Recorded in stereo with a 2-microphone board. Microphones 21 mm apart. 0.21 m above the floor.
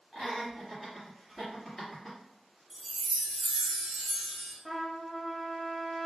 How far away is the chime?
About 0.7 m.